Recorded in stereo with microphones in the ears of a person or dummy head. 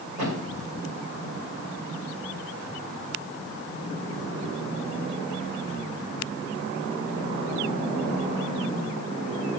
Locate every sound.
0.2 s a thud: 35° right (ahead or behind), 7 m